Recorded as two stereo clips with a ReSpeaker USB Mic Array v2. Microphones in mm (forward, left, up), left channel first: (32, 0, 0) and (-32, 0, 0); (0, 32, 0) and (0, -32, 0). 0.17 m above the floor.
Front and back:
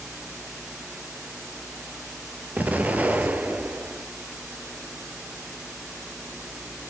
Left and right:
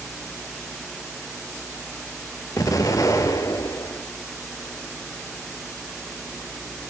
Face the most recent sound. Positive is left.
turn(degrees=115)